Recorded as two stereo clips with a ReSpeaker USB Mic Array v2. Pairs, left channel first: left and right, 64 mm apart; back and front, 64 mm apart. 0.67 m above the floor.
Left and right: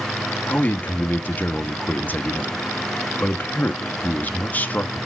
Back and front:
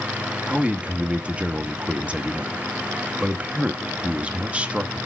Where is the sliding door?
I don't hear a sliding door.